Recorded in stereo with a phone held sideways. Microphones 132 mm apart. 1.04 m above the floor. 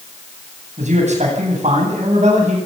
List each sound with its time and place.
0.8 s a man speaking: 60° right (ahead or behind), 9 m